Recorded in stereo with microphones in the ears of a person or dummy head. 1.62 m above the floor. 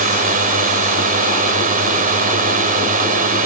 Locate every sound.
0.0 s a drone: 45° right (ahead or behind)